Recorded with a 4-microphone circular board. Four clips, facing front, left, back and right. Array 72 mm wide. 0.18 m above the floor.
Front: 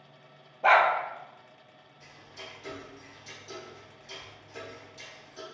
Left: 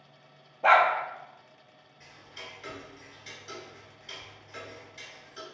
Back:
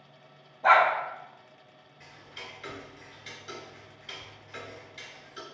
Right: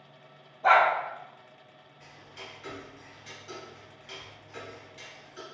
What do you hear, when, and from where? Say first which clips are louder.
0.6 s a dog barking: even, back 1 dB; 50° left, 1.0 m
2.0 s ticking: even, back 1 dB; 170° left, 1.0 m